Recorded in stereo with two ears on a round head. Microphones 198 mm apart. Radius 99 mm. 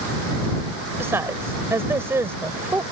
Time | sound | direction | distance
1.0 | a woman speaking | 10° right (ahead or behind) | ?